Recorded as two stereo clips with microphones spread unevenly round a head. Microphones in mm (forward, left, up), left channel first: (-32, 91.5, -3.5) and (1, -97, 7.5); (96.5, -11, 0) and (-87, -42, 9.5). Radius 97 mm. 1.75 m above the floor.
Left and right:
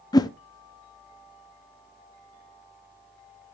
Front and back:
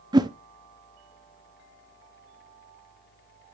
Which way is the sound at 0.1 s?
155° left.